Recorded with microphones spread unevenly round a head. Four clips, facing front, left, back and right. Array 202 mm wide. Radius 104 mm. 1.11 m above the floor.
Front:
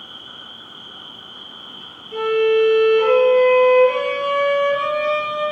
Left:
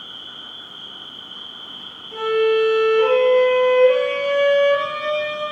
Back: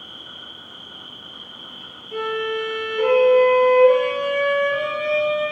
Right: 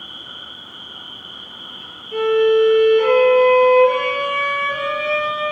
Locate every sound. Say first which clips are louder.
0.0 s an insect: right 2 dB, front 1 dB; 135° right, 1.3 m
2.1 s a violin: right 3 dB, front 8 dB; 170° left, 1.0 m